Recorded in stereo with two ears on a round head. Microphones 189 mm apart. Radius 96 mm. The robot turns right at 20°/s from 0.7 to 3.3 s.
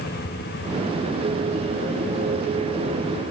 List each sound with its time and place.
Only background noise.